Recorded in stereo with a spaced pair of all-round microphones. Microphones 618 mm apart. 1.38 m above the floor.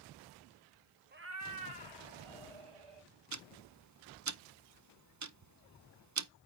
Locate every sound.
1.1 s a cat meowing: 15° right (ahead or behind), 0.6 m; by 3.1 s 60° right (ahead or behind), 1.6 m
3.3 s ticking: 30° right (ahead or behind), 0.5 m